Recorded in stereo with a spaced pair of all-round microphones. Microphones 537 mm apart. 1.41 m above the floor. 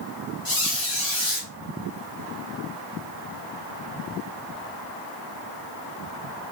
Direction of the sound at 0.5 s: 40° left (ahead or behind).